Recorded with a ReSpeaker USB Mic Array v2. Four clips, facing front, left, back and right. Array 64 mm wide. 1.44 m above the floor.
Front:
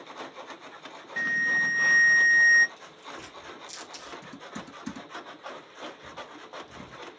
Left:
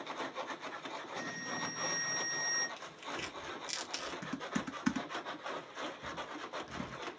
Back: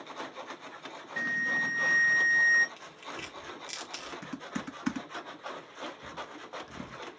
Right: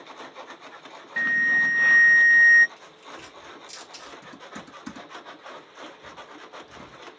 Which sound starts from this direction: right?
An alarm, at 1.2 s.